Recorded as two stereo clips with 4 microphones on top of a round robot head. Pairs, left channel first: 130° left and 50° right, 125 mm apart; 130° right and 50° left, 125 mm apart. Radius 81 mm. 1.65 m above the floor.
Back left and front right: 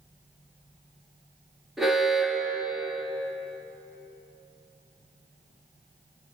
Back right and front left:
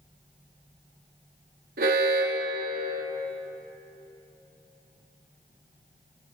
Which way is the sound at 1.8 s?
40° left.